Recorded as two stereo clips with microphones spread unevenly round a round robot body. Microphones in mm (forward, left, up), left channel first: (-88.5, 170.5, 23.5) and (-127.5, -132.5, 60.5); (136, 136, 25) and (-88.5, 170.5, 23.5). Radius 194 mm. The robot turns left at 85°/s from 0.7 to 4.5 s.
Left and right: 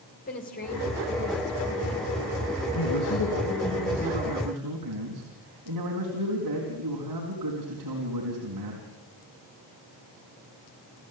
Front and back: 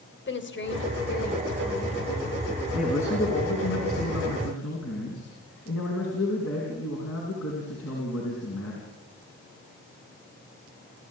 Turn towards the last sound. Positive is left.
turn(degrees=-55)